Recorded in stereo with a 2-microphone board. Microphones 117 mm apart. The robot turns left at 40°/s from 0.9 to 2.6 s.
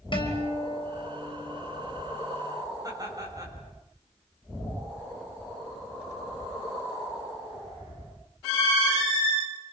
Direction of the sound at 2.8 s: 35° right (ahead or behind).